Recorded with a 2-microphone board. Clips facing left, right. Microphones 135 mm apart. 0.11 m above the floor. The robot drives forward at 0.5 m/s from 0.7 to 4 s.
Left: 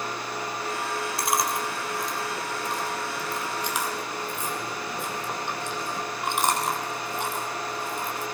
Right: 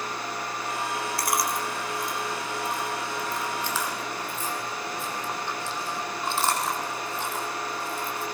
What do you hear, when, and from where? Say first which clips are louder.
1.2 s chewing: left 2 dB; 20° left (ahead or behind), 3.5 m; by 8.2 s 15° left (ahead or behind), 4.5 m